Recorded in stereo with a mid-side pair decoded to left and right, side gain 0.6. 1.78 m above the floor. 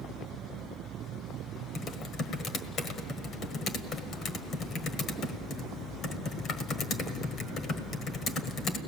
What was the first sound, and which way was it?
Typing on a keyboard, 45° left.